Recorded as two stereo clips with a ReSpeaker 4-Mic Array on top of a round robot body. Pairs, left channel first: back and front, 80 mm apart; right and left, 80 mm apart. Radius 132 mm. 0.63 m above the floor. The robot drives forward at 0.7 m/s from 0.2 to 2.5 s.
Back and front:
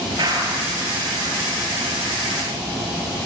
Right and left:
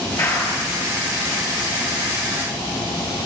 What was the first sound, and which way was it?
A clap, 35° right.